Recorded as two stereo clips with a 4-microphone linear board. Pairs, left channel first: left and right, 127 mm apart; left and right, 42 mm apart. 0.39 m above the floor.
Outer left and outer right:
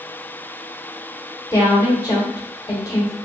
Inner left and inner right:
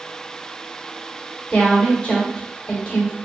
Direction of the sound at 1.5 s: 30° left (ahead or behind).